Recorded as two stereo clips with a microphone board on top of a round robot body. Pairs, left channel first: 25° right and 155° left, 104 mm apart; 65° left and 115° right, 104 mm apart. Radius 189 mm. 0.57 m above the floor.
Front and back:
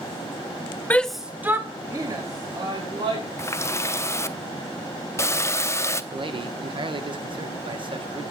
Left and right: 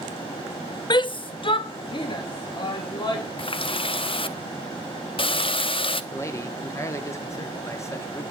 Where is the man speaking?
125° left, 1.6 m.